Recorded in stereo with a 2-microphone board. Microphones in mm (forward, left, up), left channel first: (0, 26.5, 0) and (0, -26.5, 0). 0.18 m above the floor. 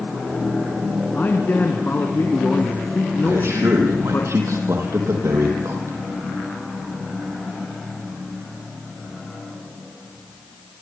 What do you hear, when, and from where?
1.1 s a man speaking: 40° left (ahead or behind), 2.0 m
3.2 s a man speaking: 65° right (ahead or behind), 7.5 m